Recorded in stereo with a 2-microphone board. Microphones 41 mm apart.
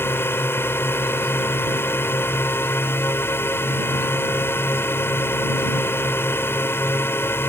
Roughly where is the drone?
Left.